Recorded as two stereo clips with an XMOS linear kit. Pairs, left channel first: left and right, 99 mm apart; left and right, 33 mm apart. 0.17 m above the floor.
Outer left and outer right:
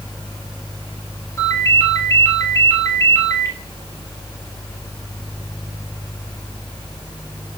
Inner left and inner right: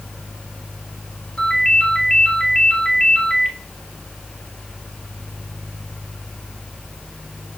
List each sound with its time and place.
1.4 s a ringtone: 30° left (ahead or behind), 2.5 m